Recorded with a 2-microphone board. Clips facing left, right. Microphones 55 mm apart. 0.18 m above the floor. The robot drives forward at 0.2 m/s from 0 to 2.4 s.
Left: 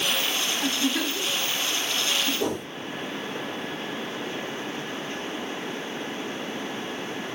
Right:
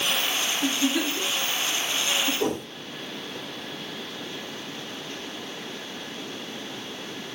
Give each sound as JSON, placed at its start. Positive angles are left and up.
{"t": 0.6, "sound": "a giggle", "side_deg": 20, "distance_m": 1.3}
{"t": 2.4, "sound": "a whoosh", "side_deg": -10, "distance_m": 2.0}